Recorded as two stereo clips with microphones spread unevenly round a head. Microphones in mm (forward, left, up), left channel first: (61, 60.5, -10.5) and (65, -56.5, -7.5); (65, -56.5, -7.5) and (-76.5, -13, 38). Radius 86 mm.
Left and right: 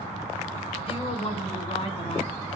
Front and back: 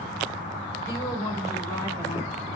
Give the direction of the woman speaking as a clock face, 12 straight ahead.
10 o'clock.